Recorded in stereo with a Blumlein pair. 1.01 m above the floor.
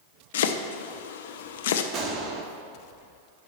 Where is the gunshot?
25° right, 1.2 m.